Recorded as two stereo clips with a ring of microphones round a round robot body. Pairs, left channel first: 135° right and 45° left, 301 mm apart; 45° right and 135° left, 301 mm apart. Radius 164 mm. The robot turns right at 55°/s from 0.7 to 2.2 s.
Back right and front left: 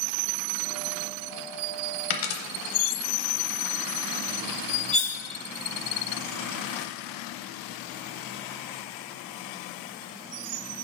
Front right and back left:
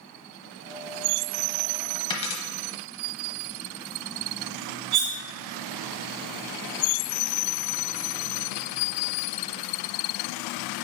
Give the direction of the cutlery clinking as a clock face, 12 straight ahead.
7 o'clock.